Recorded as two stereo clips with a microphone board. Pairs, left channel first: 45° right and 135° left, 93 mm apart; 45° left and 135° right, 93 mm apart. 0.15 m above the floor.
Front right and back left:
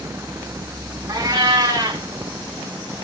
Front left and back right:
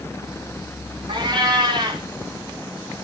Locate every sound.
1.1 s a cat meowing: 170° right, 3.5 m